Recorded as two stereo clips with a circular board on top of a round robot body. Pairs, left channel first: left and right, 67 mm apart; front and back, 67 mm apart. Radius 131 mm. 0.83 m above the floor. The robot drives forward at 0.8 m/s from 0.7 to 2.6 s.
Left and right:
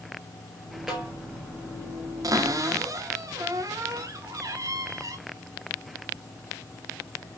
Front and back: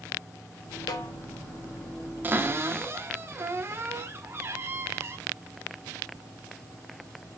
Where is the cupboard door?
120° right, 1.5 m; by 5.2 s 130° right, 1.6 m.